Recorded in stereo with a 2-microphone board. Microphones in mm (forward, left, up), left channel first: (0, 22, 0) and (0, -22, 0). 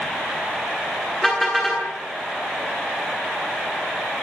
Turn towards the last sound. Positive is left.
turn(degrees=5)  # may be behind; listen again after turning